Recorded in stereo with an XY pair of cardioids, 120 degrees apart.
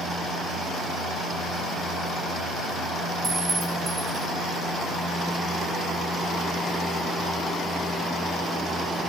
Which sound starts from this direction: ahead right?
A clink, at 3.2 s.